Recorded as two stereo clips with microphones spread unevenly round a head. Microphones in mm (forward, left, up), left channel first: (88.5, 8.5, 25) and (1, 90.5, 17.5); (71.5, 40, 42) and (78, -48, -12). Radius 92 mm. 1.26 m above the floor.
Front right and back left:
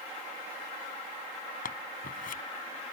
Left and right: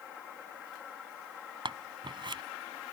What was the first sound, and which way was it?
Scissors, 50° right.